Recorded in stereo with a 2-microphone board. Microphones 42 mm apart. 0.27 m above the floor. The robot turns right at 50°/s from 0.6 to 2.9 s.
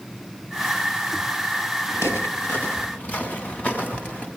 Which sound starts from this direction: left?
Footsteps, at 1.9 s.